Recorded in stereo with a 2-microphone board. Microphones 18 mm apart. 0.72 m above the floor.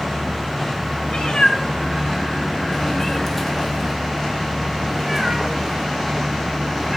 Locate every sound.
1.1 s a cat meowing: 85° left, 1.7 m; by 7.0 s 25° right (ahead or behind), 3.5 m